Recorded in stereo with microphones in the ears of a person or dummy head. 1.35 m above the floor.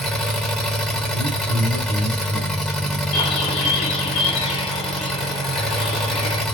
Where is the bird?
25° left (ahead or behind), 1.0 m.